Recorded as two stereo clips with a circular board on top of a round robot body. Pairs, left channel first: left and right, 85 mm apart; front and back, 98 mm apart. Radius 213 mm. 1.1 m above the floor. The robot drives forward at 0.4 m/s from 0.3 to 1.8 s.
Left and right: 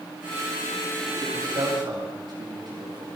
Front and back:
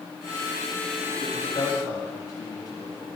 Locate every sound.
1.2 s a man speaking: 50° right, 2.5 m; by 3.1 s 55° right, 2.5 m